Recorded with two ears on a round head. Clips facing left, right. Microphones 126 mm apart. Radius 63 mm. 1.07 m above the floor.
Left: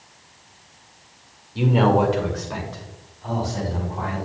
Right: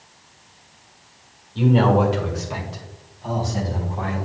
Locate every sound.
1.6 s a man speaking: 15° left (ahead or behind), 1.8 m; by 4.2 s 30° right (ahead or behind), 3.5 m